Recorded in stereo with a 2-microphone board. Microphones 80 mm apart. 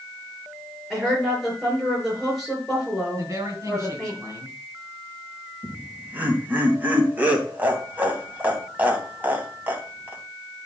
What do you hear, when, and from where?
0.9 s a woman speaking: centre (ahead or behind), 5.5 m
3.2 s a woman speaking: 40° right (ahead or behind), 4 m
5.6 s laughter: 20° right (ahead or behind), 2.5 m